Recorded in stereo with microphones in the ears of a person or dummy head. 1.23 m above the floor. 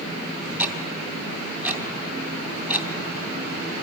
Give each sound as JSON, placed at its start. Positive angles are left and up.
{"t": 0.6, "sound": "ticking", "side_deg": -10, "distance_m": 2.0}